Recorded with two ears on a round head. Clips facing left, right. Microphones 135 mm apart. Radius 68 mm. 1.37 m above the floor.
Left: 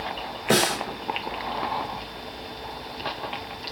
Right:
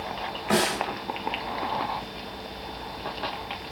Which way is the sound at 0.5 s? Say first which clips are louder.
Left 2 dB; 35° left (ahead or behind).